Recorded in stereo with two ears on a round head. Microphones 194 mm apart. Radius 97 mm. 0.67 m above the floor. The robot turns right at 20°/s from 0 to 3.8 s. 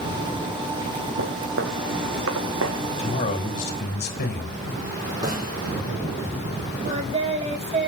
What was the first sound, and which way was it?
Footsteps, 55° right (ahead or behind).